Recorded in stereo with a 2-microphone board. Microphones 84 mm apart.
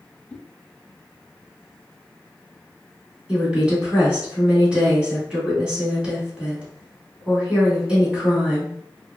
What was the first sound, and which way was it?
A whoosh, 20° left (ahead or behind).